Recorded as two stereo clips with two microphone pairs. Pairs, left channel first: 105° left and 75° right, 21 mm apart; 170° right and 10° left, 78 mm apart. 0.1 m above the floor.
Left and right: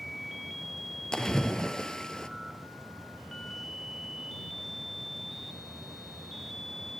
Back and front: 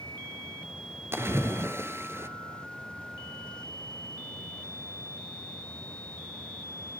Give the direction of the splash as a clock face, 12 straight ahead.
10 o'clock.